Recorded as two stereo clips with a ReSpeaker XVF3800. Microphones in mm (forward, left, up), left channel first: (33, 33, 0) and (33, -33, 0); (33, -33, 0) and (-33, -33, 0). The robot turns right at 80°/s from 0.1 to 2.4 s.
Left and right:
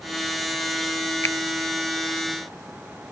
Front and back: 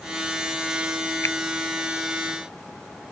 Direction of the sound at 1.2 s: 40° left.